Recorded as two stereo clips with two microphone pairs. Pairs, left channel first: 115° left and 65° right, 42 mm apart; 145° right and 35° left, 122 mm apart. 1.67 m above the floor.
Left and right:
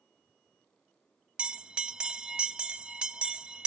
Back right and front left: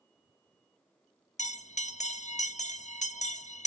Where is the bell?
130° right, 0.7 m.